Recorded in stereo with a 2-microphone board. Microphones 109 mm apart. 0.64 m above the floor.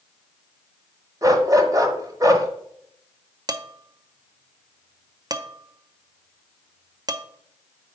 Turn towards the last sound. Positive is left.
turn(degrees=-35)  # may be behind; listen again after turning